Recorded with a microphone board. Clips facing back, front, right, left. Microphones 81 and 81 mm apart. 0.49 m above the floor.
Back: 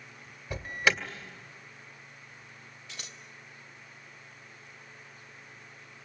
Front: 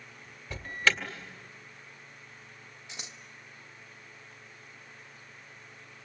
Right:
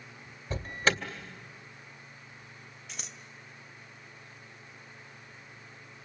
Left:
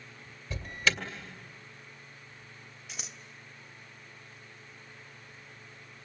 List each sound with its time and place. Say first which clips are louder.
0.5 s an alarm: back 1 dB, right 2 dB; 110° right, 2 m
2.9 s scissors: front 1 dB, even; 5° left, 1.2 m